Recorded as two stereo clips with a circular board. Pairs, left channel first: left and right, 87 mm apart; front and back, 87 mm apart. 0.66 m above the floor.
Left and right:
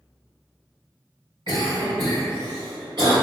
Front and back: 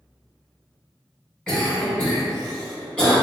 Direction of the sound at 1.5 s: 80° right.